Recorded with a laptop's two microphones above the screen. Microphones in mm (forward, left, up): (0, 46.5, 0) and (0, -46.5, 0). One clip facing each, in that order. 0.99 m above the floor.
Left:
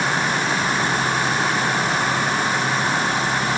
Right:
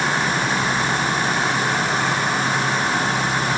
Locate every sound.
Only background noise.